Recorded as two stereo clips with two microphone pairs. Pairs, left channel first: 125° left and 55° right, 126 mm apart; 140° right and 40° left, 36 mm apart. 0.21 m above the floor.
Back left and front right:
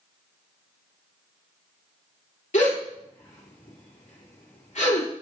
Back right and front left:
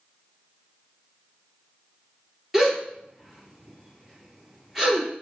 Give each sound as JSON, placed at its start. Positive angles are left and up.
{"t": 2.5, "sound": "a gasp", "azimuth_deg": 120, "distance_m": 1.8}